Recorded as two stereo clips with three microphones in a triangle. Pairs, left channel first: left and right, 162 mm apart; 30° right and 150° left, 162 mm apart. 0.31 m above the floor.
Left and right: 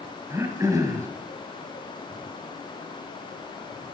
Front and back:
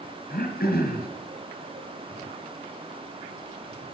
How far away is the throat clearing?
About 1.9 m.